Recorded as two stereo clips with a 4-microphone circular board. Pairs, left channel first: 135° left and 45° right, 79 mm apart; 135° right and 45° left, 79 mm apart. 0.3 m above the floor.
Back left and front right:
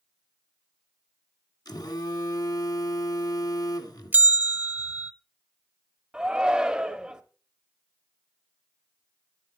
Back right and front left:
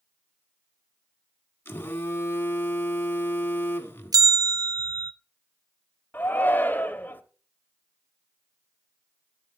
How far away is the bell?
About 0.6 m.